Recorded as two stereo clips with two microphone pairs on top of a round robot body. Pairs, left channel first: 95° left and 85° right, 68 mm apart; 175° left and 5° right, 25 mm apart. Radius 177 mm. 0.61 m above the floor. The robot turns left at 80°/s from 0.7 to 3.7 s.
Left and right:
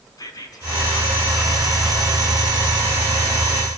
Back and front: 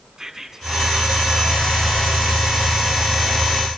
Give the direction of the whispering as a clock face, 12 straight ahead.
10 o'clock.